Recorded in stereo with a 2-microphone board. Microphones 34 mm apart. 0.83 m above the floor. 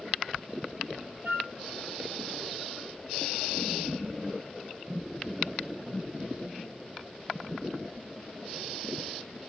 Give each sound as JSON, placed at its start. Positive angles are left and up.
{"t": 1.2, "sound": "a flute", "side_deg": -80, "distance_m": 4.0}